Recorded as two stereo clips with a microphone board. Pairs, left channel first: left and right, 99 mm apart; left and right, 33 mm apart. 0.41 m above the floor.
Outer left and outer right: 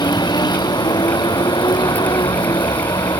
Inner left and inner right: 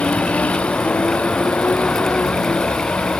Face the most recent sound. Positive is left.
turn(degrees=45)  # may be behind; listen again after turning